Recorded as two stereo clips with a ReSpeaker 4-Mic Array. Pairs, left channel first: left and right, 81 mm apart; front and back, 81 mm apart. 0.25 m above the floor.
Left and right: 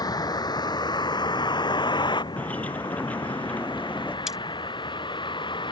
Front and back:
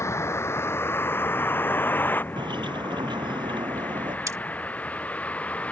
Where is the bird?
165° left.